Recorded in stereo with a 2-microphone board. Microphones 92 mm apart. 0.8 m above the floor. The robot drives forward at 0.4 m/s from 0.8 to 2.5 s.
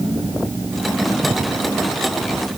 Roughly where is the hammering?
No hammering in this recording.